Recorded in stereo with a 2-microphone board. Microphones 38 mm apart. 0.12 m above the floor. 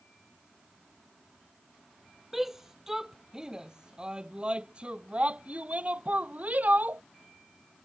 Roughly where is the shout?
Centre.